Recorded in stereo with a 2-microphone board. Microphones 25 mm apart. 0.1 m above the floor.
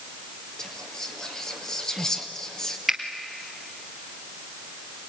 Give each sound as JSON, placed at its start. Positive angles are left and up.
{"t": 0.6, "sound": "whispering", "side_deg": 30, "distance_m": 1.9}
{"t": 2.9, "sound": "a finger snap", "side_deg": -10, "distance_m": 2.5}